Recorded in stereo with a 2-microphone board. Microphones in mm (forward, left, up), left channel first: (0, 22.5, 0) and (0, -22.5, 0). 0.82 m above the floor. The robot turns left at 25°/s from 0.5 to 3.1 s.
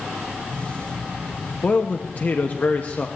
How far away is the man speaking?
About 0.9 m.